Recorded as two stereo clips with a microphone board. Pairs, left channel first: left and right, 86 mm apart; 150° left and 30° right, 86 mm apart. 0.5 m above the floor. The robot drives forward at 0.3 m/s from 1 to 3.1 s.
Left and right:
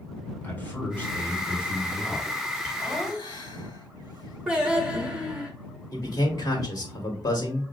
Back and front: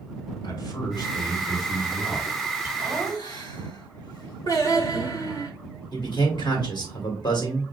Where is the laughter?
115° left, 2.0 m; by 5.5 s 120° left, 2 m.